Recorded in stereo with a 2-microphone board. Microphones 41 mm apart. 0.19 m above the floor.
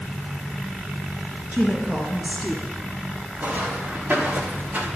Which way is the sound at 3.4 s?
40° right (ahead or behind).